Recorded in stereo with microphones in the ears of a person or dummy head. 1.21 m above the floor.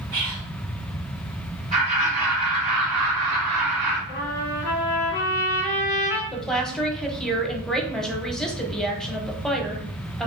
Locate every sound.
0.1 s whispering: 55° right (ahead or behind), 1.8 m
1.7 s laughter: 35° right (ahead or behind), 2.0 m
4.1 s a trumpet: 40° left (ahead or behind), 1.7 m
6.3 s a woman speaking: centre (ahead or behind), 0.7 m